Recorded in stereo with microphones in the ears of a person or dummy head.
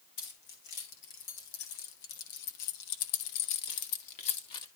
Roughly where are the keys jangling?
Left.